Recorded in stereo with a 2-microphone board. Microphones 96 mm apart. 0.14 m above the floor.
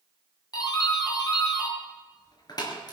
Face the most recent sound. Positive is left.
turn(degrees=45)  # may be behind; listen again after turning